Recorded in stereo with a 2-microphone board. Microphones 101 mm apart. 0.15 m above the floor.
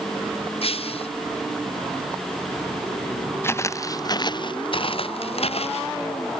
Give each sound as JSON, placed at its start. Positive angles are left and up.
{"t": 0.6, "sound": "breaking glass", "side_deg": 70}
{"t": 3.4, "sound": "footsteps", "side_deg": 25}